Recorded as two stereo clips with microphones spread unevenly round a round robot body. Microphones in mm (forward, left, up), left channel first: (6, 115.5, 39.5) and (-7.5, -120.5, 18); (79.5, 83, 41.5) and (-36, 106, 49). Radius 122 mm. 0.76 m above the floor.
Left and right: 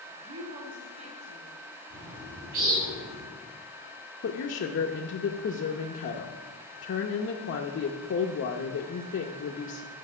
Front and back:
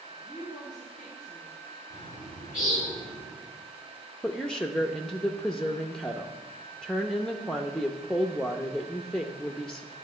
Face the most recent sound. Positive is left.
turn(degrees=70)